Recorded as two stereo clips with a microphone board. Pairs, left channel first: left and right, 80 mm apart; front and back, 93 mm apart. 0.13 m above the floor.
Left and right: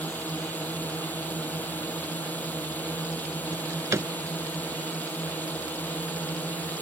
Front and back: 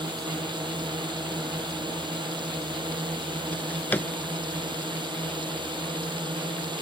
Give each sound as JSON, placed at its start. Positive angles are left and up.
{"t": 0.0, "sound": "a drone", "azimuth_deg": 155}
{"t": 3.5, "sound": "a drawer", "azimuth_deg": -60}